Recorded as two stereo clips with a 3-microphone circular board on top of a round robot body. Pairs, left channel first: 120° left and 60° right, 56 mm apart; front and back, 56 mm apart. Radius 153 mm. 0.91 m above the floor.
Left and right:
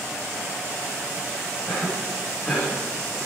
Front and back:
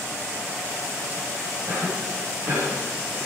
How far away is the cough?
About 6 m.